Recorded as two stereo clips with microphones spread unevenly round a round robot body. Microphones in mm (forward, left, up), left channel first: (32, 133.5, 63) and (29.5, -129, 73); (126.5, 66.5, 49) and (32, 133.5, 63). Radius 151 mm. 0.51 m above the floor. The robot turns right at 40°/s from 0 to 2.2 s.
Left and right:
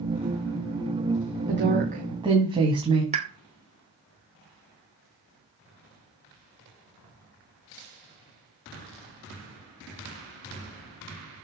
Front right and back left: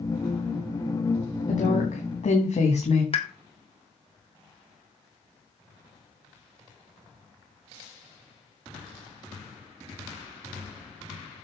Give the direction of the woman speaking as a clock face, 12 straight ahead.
2 o'clock.